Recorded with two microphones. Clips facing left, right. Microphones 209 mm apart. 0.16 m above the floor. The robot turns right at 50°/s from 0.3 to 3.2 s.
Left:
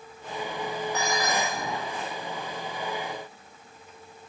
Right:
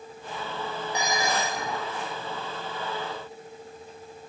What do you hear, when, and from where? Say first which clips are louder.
0.9 s dishes clattering: right 1 dB; 170° right, 4.5 m; by 1.6 s 135° right, 4.5 m